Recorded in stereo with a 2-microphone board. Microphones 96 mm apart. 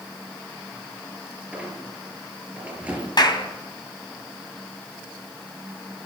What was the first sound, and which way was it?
A squeak, 15° right (ahead or behind).